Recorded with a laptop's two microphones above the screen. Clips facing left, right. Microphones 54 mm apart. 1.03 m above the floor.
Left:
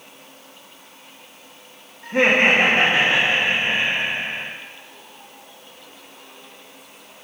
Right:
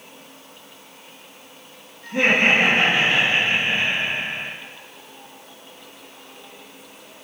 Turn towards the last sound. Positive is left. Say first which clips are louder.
# left 2 dB
turn(degrees=30)  # may be behind; listen again after turning